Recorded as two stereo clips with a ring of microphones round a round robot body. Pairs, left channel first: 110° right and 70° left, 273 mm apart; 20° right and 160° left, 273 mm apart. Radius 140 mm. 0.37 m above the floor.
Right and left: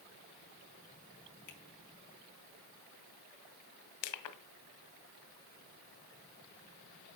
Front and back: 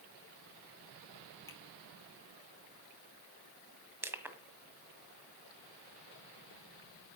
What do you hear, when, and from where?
1.5 s a finger snap: 100° right, 4 m
4.0 s crushing: 120° right, 1.5 m